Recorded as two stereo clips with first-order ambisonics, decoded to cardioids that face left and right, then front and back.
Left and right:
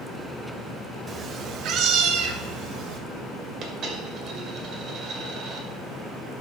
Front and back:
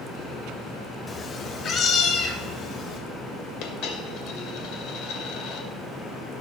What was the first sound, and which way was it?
A cat meowing, 55° right.